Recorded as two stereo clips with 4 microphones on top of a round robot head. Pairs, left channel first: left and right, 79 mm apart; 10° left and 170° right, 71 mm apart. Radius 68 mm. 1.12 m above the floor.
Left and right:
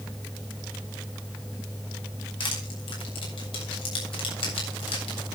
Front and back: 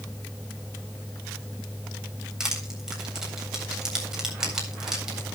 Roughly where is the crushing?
Left.